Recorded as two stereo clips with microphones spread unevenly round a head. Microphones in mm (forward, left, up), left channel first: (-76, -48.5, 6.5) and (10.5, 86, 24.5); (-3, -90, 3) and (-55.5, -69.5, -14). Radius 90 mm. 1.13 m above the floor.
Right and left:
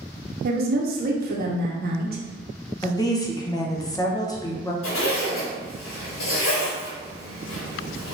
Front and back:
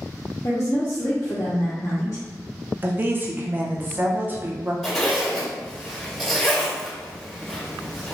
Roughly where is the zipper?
Right.